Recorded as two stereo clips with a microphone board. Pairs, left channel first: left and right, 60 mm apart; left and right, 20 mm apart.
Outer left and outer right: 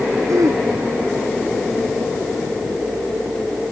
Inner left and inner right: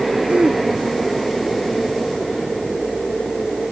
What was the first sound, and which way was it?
Throat clearing, 65° right (ahead or behind).